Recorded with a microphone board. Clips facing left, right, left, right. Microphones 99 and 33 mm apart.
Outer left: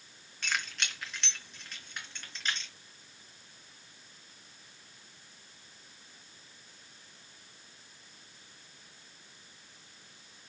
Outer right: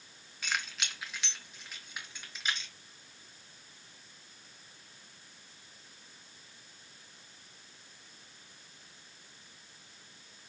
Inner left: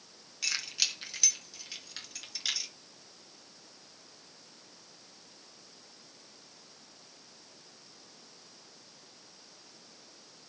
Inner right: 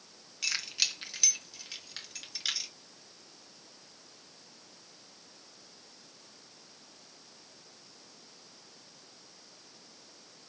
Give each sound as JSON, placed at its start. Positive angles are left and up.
{"t": 0.4, "sound": "keys jangling", "side_deg": -5, "distance_m": 3.0}